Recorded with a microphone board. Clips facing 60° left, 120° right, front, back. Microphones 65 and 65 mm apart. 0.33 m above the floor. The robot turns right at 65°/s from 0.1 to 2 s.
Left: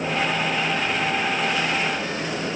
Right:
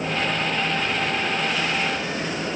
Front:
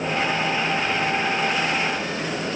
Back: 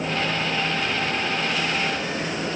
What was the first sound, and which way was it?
Only background noise.